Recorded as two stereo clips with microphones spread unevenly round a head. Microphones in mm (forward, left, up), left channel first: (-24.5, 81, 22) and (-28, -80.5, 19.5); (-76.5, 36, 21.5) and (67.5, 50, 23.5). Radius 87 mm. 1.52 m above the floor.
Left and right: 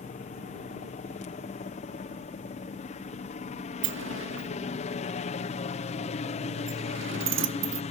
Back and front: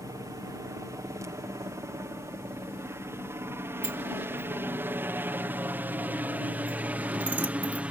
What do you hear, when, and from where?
0.0 s a helicopter: 65° left; by 7.9 s 80° left
3.8 s a sliding door: 75° right